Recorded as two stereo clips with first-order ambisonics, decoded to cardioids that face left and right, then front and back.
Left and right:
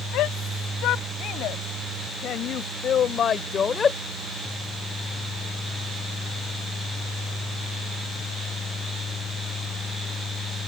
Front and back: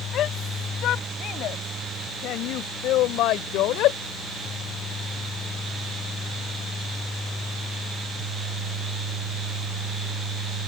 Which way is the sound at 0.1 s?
50° left.